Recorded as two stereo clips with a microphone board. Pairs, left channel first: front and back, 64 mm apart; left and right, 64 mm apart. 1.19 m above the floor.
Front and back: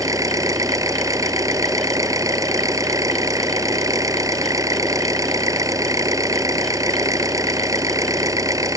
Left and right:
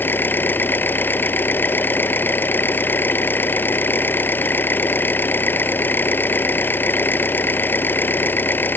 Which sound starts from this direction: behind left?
An engine running, at 0.0 s.